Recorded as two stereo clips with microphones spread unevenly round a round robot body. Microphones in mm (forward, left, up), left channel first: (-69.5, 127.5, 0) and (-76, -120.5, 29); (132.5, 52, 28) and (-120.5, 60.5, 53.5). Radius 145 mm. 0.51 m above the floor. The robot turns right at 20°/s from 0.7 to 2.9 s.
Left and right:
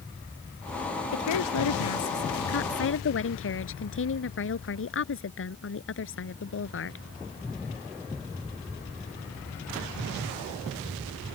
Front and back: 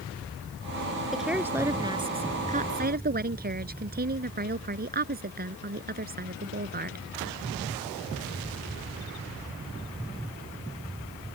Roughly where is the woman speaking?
Left.